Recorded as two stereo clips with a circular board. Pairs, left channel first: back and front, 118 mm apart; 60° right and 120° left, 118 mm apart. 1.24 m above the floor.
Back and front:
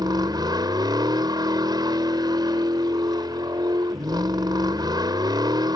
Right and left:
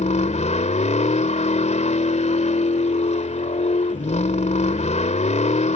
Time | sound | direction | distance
0.0 | a vehicle | 55° right | ?